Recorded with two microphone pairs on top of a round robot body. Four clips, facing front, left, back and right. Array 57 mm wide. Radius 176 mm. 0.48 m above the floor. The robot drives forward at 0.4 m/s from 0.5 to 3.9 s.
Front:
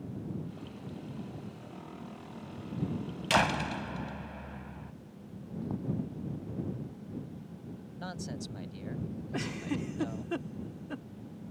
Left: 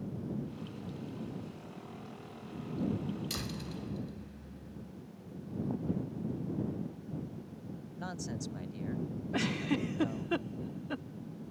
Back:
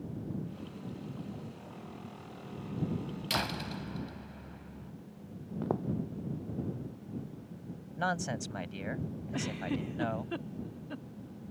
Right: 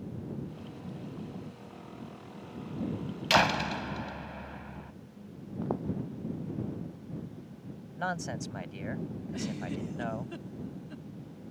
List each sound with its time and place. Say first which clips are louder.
3.3 s a door slam: right 15 dB, front 8 dB; 65° right; by 4.9 s 70° right
5.6 s footsteps: right 4 dB, back 5 dB; 145° right
8.0 s a man speaking: right 7 dB, back 8 dB; 145° right
9.3 s a giggle: left 5 dB, even; 75° left